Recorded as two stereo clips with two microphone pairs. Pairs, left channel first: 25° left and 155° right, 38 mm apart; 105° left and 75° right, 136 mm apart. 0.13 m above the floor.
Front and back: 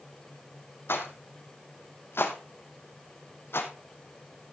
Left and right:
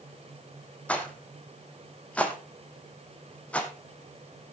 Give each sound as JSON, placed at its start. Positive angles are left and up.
{"t": 0.9, "sound": "a rattle", "azimuth_deg": 25, "distance_m": 1.8}